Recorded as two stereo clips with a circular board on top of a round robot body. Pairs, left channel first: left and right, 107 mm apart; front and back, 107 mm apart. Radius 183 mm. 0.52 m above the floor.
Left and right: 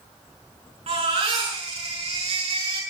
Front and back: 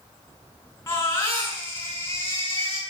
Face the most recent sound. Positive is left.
turn(degrees=-65)